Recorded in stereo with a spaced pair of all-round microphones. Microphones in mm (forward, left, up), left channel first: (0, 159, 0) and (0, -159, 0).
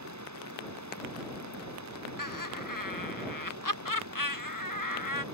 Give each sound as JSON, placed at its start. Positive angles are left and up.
{"t": 0.0, "sound": "running water", "side_deg": -60}
{"t": 2.2, "sound": "laughter", "side_deg": 80}